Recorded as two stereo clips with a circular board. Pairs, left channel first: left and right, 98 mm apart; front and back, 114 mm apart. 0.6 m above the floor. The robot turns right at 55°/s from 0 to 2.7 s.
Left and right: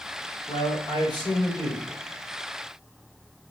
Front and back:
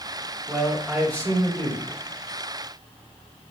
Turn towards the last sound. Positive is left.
turn(degrees=-150)